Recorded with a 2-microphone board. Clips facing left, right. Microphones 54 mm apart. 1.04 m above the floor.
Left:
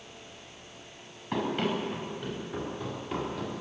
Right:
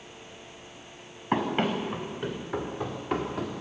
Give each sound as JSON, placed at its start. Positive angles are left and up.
{"t": 1.3, "sound": "running footsteps", "side_deg": -45, "distance_m": 4.5}